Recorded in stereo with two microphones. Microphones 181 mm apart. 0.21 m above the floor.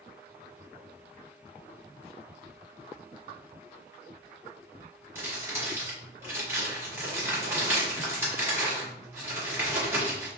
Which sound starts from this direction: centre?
Crumpling, at 5.2 s.